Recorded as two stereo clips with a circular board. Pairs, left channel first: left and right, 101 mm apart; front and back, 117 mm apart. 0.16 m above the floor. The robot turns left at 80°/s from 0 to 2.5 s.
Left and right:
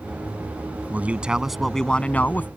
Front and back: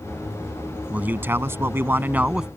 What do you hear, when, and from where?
0.9 s a man speaking: 125° right; by 2.5 s 110° left